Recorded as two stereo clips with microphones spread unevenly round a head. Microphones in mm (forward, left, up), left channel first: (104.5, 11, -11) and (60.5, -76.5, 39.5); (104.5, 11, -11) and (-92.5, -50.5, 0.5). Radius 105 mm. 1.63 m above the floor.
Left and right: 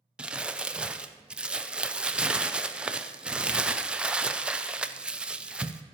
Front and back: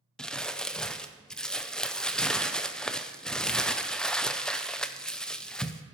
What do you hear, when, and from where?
0.2 s crumpling: 70° right, 0.5 m